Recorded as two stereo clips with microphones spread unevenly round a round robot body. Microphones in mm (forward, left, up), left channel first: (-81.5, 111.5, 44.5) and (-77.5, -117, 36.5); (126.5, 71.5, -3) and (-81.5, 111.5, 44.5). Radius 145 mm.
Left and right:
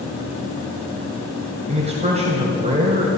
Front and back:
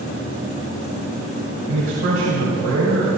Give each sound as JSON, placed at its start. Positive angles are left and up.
{"t": 1.7, "sound": "a man speaking", "azimuth_deg": -150, "distance_m": 2.5}